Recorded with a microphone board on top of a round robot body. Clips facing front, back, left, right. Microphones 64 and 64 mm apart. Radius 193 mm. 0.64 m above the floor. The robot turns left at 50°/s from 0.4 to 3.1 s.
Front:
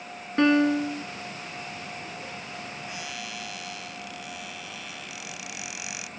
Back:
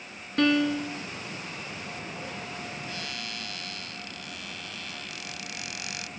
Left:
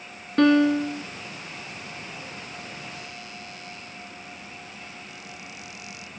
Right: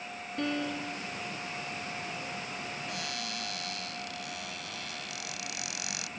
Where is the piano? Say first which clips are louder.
Front 3 dB, left 15 dB; 65° left; by 1.0 s 35° left.